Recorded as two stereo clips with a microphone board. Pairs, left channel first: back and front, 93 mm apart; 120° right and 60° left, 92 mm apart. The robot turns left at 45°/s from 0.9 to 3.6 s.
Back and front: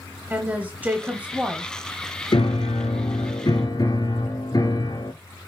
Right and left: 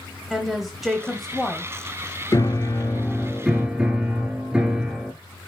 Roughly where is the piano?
Behind.